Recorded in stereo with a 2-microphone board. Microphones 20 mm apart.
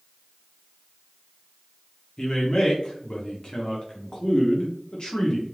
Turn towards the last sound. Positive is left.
turn(degrees=40)  # may be behind; listen again after turning